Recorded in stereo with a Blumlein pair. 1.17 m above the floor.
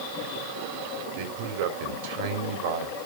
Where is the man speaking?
50° right, 3 m.